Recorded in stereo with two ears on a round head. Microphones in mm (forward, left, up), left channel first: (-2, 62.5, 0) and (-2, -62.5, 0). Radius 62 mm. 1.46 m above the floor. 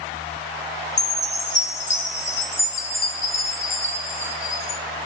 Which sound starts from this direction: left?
A chime, at 1.0 s.